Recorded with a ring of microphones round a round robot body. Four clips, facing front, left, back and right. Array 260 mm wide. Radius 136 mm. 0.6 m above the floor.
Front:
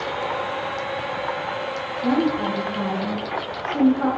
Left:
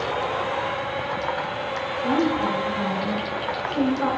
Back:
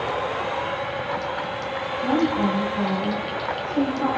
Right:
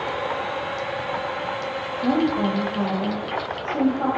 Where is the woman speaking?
105° right, 3 m; by 4.1 s 60° right, 4 m.